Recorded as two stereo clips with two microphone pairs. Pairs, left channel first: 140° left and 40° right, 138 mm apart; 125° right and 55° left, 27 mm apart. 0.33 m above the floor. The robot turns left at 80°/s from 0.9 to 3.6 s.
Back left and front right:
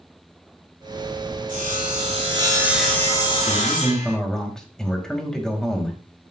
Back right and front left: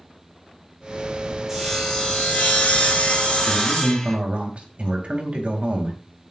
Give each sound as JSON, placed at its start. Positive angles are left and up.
{"t": 1.5, "sound": "sawing", "azimuth_deg": -25, "distance_m": 4.5}
{"t": 3.5, "sound": "a man speaking", "azimuth_deg": 70, "distance_m": 2.0}